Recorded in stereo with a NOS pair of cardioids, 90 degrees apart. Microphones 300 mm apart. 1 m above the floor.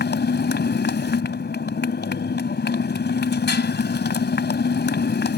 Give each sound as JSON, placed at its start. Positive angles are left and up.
{"t": 0.0, "sound": "a motorcycle", "azimuth_deg": 35}